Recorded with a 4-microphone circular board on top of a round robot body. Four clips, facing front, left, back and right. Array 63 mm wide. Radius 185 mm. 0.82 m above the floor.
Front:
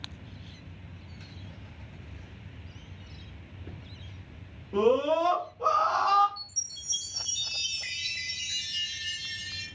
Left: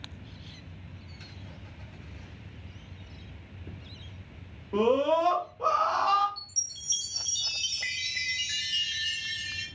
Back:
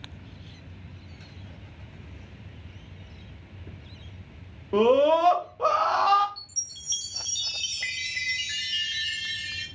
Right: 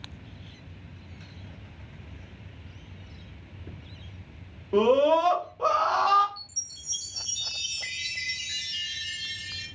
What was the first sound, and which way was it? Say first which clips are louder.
A scream: right 4 dB, back 5 dB; 155° right.